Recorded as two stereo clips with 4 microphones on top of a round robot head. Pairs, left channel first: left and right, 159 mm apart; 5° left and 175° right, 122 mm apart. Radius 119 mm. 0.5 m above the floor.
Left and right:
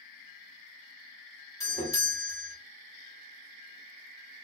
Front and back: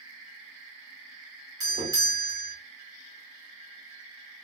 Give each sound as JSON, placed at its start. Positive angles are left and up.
{"t": 1.6, "sound": "a doorbell", "azimuth_deg": 150, "distance_m": 1.7}